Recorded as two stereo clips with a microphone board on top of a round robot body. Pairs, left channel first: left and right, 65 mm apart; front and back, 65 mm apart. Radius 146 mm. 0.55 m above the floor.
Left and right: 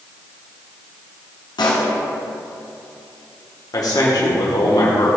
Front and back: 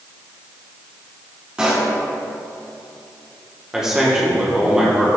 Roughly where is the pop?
Left.